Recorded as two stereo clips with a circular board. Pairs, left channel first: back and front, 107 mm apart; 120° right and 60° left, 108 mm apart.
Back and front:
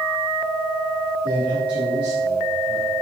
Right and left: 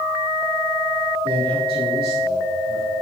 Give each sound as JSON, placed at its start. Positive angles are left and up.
{"t": 1.2, "sound": "a man speaking", "azimuth_deg": 25, "distance_m": 5.5}